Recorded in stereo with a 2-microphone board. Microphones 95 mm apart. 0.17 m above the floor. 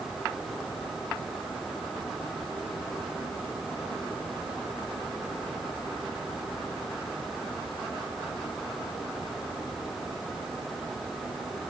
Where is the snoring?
I don't hear snoring.